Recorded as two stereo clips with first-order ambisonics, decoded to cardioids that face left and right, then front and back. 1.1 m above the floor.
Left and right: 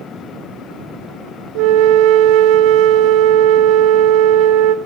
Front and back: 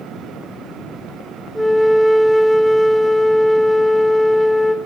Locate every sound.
1.6 s a flute: 90° right, 0.7 m